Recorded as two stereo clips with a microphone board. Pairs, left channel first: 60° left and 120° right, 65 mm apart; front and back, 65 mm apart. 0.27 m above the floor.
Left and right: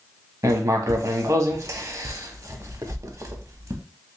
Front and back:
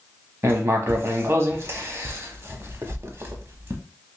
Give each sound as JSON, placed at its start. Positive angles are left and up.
{"t": 0.4, "sound": "writing", "azimuth_deg": -140, "distance_m": 0.6}